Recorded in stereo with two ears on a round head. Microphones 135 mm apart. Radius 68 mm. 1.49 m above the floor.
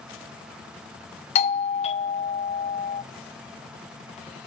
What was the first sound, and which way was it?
A doorbell, 45° left (ahead or behind).